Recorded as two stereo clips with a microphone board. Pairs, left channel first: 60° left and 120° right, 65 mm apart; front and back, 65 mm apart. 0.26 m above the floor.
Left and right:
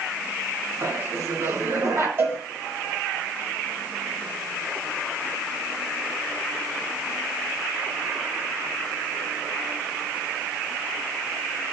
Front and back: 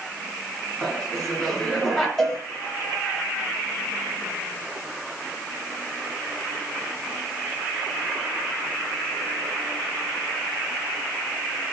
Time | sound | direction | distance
0.8 | laughter | 80° right | 3 m
2.2 | a cowbell | 80° right | 2 m